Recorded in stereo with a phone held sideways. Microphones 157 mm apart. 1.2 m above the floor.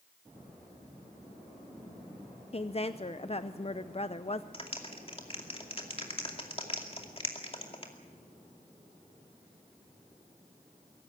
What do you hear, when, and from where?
2.5 s a woman speaking: 40° left (ahead or behind), 0.6 m
4.5 s a clap: 40° left (ahead or behind), 2.5 m